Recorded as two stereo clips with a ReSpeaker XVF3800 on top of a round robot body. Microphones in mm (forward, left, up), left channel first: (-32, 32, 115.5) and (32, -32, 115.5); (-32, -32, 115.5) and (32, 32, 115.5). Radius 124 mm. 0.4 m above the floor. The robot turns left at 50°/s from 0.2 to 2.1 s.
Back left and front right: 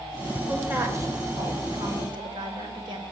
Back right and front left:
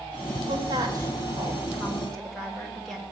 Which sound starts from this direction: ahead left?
A woman speaking, at 0.5 s.